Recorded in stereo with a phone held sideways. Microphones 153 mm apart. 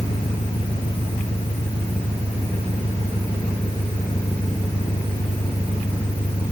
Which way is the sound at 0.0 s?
40° left (ahead or behind).